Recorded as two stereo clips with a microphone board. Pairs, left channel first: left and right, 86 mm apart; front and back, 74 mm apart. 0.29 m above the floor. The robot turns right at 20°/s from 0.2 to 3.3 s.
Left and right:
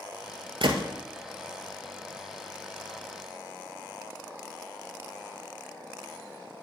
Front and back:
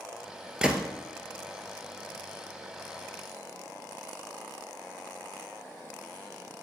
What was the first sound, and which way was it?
A gunshot, 100° right.